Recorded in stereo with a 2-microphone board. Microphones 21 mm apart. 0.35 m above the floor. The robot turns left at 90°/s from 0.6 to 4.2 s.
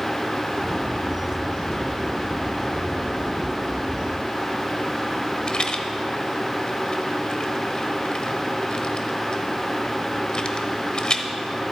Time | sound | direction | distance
5.5 | a rattle | 45° left (ahead or behind) | 1.0 m